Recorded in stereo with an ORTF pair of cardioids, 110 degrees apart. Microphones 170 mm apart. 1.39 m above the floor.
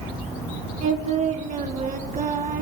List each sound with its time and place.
0.8 s singing: 50° right, 1.3 m